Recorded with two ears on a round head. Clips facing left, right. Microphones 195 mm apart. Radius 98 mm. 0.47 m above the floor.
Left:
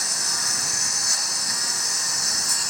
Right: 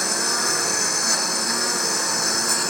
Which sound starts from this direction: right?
A lawn mower, at 0.0 s.